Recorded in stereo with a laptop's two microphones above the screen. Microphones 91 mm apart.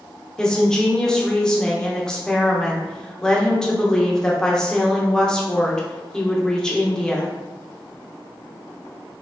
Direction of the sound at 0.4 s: 10° left (ahead or behind).